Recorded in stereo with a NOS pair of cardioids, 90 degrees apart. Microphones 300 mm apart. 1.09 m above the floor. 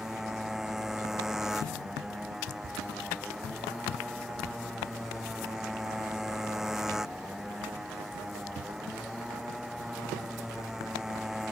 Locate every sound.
0.0 s a motorcycle: straight ahead